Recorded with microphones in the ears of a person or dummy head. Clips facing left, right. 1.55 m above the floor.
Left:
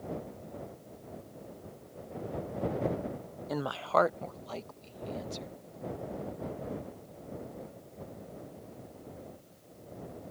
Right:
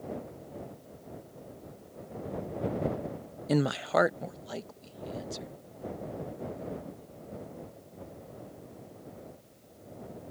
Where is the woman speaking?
40° right (ahead or behind); by 5.6 s 10° right (ahead or behind).